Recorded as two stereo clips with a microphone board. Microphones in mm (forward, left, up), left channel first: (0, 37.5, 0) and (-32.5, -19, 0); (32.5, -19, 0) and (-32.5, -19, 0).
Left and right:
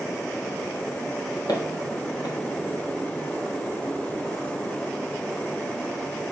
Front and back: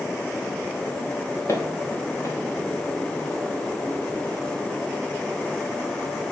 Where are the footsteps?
45° left, 3 m.